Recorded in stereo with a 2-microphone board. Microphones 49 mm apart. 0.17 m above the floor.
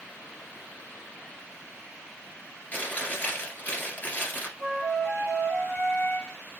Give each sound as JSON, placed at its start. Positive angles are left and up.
{"t": 2.7, "sound": "chewing", "side_deg": 35, "distance_m": 2.0}
{"t": 4.6, "sound": "a flute", "side_deg": 70, "distance_m": 4.0}